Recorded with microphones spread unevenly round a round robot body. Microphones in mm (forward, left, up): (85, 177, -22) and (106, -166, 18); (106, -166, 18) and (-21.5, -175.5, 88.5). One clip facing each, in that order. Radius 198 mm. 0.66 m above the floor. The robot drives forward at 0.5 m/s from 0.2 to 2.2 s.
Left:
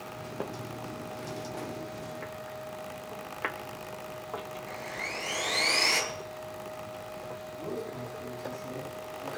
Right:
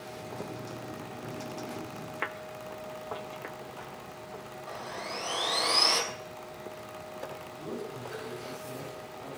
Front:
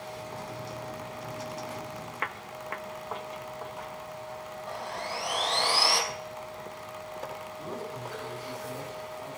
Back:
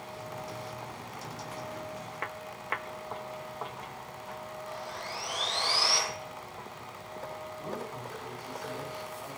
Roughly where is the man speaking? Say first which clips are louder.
Left 1 dB, front 1 dB; left.